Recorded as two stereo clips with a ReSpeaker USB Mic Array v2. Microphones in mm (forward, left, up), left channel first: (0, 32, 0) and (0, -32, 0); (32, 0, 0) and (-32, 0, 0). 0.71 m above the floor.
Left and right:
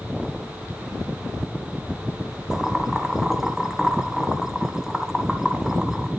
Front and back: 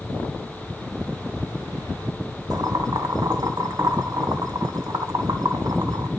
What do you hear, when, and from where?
2.5 s boiling: 170° right, 2 m